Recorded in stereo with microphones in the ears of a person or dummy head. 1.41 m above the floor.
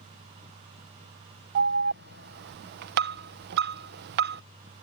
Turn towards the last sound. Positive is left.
turn(degrees=-60)  # may be behind; listen again after turning